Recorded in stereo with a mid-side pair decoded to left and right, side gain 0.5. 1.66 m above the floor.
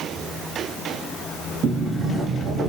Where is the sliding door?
45° right, 1.0 m.